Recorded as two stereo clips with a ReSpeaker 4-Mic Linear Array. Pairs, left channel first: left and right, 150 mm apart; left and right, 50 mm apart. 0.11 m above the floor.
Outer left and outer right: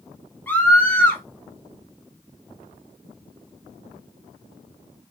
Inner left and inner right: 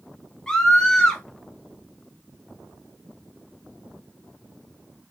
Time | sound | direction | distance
0.5 | a scream | 15° left (ahead or behind) | 1.2 m